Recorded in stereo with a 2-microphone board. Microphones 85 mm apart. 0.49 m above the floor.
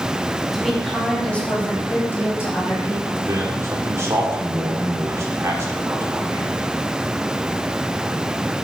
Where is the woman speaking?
Centre (ahead or behind), 3 m; by 3.1 s 35° left (ahead or behind), 3.5 m.